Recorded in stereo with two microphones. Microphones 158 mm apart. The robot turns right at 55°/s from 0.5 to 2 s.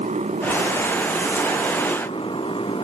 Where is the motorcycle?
50° right; by 2.8 s 35° left.